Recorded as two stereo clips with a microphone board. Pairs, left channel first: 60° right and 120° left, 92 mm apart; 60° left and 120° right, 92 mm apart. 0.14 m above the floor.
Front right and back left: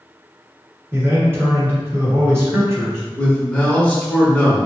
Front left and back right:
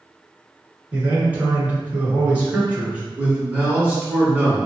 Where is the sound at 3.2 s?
110° right, 1.4 m.